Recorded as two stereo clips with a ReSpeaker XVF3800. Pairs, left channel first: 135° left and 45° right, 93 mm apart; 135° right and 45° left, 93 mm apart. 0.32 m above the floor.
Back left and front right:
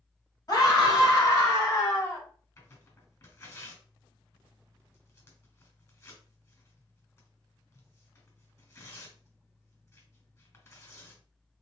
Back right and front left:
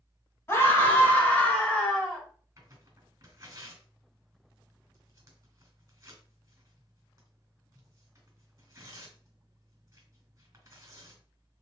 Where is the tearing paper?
85° left, 1.9 m.